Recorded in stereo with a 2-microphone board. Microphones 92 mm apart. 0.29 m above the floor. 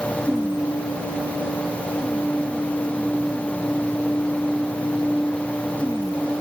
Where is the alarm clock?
No alarm clock in this recording.